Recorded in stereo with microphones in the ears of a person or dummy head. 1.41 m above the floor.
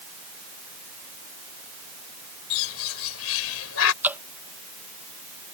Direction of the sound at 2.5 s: 80° left.